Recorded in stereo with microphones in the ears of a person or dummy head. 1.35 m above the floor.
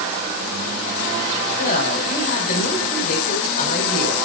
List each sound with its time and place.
1.6 s a woman speaking: 45° left (ahead or behind), 5.5 m